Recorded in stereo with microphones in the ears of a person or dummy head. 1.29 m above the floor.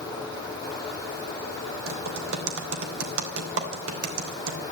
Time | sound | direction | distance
1.9 | typing on a keyboard | 80° right | 3 m